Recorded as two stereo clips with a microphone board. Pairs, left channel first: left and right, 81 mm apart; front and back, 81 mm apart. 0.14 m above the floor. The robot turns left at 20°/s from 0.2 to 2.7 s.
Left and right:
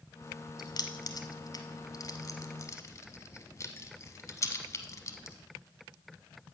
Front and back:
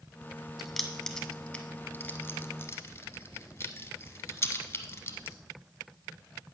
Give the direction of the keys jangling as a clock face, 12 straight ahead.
9 o'clock.